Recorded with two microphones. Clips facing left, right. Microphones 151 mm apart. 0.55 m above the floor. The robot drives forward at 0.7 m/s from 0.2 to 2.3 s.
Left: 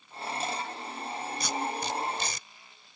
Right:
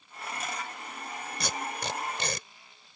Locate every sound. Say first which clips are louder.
1.4 s tape being pulled: left 2 dB; 65° right (ahead or behind)